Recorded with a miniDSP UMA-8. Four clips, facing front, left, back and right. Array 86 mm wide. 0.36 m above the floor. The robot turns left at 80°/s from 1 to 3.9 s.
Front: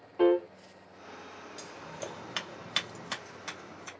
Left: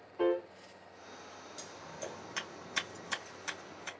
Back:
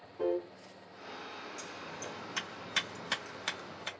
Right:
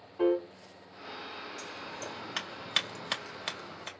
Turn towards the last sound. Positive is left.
turn(degrees=-150)